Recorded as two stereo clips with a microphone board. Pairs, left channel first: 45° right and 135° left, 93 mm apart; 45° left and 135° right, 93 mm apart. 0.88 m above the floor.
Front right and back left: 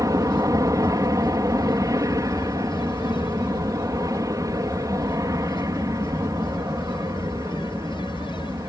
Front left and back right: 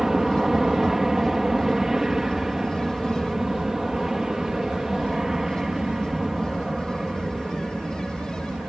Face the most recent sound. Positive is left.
turn(degrees=140)